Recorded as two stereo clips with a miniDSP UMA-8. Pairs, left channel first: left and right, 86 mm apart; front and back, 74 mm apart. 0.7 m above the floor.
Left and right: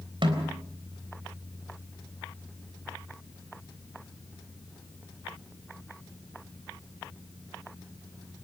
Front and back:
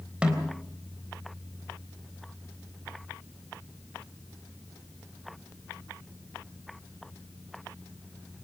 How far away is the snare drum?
About 3.5 m.